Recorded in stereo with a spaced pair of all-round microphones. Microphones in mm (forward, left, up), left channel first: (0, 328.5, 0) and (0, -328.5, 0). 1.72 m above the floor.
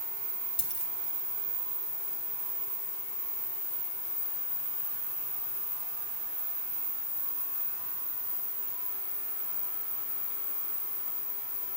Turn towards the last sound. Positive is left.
turn(degrees=50)  # may be behind; listen again after turning